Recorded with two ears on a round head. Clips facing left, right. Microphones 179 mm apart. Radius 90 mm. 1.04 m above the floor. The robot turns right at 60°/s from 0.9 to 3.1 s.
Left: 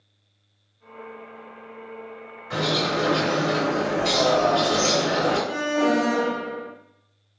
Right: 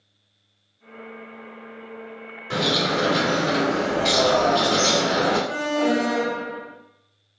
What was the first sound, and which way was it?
A bird, 65° right.